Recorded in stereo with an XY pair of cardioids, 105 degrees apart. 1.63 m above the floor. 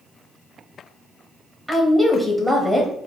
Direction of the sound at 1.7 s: 10° left.